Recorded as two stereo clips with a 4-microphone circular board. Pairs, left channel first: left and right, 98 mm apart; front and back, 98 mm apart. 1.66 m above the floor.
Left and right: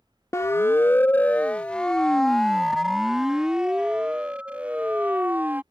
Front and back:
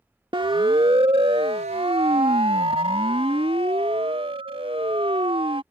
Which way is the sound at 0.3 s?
150° left.